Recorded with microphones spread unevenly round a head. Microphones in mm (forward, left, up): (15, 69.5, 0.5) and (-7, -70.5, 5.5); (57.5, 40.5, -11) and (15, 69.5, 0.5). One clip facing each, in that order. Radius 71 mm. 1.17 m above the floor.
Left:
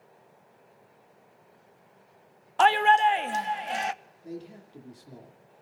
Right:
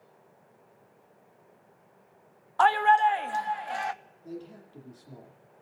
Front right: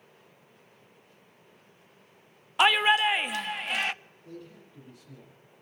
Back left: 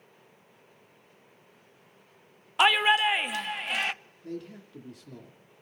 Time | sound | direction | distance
2.6 | a shout | 45° left | 0.6 m
4.2 | a man speaking | 155° left | 2.5 m